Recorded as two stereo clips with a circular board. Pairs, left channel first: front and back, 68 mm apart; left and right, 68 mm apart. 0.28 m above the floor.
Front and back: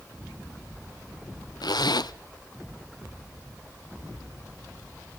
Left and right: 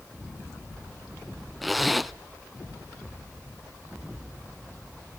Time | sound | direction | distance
1.6 | a zipper | straight ahead | 0.5 m